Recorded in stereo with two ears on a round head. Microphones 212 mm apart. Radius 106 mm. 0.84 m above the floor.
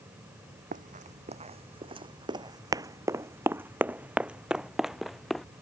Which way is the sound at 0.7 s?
35° right (ahead or behind).